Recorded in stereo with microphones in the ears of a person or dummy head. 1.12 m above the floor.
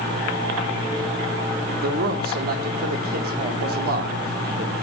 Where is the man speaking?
60° right (ahead or behind), 3.5 m.